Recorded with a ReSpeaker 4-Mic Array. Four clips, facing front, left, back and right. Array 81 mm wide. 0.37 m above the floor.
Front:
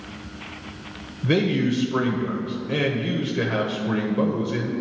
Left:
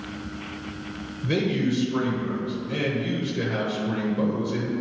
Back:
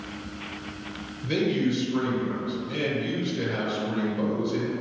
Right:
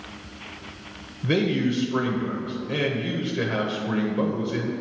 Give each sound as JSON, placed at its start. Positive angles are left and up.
{"t": 1.2, "sound": "a man speaking", "azimuth_deg": -30, "distance_m": 1.1}